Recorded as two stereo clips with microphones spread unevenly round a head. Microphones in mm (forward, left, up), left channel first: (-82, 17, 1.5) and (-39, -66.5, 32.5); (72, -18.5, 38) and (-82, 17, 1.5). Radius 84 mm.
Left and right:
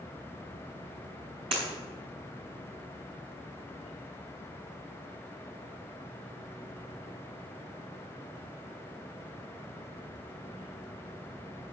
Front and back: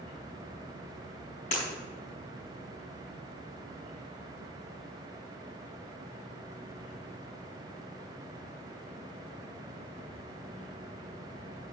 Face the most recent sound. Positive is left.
turn(degrees=-50)